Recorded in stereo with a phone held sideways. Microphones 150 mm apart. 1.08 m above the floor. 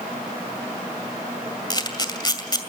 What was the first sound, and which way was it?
A camera shutter, 30° left (ahead or behind).